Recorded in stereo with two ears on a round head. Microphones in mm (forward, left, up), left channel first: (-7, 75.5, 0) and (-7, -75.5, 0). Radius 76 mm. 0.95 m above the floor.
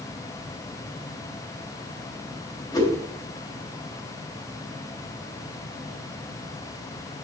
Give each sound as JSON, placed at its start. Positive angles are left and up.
{"t": 2.7, "sound": "a whoosh", "side_deg": 25, "distance_m": 3.0}